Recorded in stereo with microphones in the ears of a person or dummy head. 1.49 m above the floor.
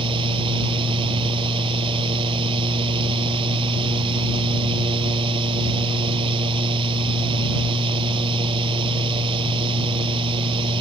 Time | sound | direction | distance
0.0 | a fan | 25° right (ahead or behind) | ?